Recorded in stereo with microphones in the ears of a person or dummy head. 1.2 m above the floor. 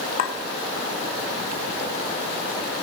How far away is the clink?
About 0.9 m.